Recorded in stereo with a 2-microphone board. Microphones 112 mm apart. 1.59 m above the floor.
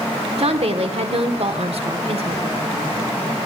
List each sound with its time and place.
0.4 s a woman speaking: 65° right (ahead or behind), 1.0 m